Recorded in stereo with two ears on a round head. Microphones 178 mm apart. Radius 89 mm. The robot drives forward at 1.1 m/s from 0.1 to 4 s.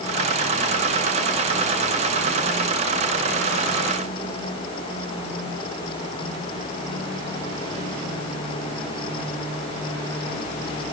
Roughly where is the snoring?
No snoring in this recording.